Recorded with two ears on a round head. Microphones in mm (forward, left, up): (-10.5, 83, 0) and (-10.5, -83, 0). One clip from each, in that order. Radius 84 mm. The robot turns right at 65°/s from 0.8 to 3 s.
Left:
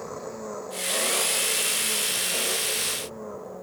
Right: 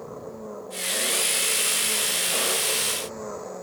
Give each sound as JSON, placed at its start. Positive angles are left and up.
{"t": 0.0, "sound": "an engine running", "azimuth_deg": 120}